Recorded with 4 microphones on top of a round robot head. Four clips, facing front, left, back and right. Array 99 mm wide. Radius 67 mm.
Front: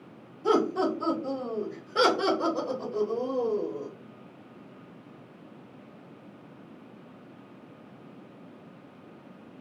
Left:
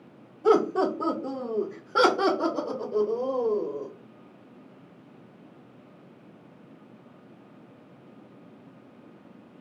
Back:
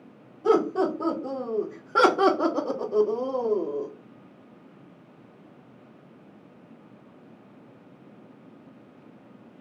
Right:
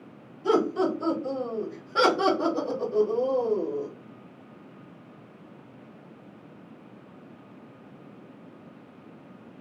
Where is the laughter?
120° left, 1.4 m; by 3.9 s 160° right, 1.4 m.